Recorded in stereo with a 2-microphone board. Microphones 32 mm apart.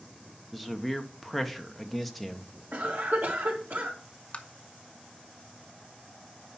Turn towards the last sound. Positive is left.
turn(degrees=40)  # may be behind; listen again after turning